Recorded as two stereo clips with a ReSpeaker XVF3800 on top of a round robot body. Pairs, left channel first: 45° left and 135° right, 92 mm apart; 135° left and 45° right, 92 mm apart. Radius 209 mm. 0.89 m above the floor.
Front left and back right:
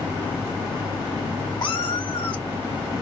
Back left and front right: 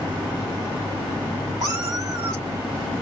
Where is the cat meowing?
10° left, 2 m.